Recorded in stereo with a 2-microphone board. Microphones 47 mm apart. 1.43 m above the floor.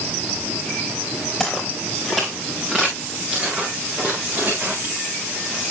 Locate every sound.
1.4 s footsteps: 5° right (ahead or behind), 6 m; by 5.0 s 55° right (ahead or behind), 5.5 m